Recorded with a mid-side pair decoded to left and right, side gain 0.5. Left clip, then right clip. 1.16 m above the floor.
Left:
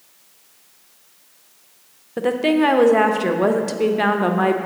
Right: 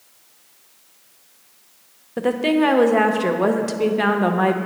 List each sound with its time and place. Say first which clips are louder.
2.2 s a woman speaking: left 1 dB; 5° left, 0.7 m